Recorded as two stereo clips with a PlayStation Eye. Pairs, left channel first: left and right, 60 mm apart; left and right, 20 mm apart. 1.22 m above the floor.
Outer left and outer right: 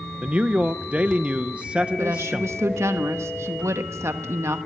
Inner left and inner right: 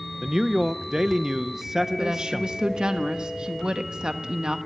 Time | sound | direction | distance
0.2 | a man speaking | 20° right (ahead or behind) | 0.6 m
2.0 | a woman speaking | 55° right (ahead or behind) | 1.3 m